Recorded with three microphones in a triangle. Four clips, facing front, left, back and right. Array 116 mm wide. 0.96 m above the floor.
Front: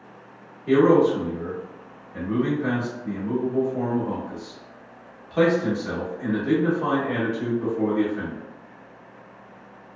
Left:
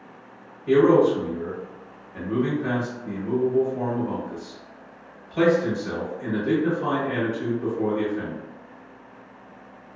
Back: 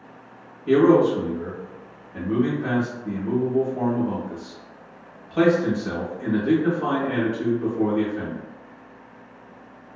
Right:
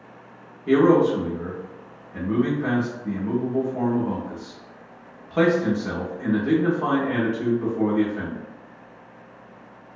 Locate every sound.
0.7 s a man speaking: 95° right, 1.1 m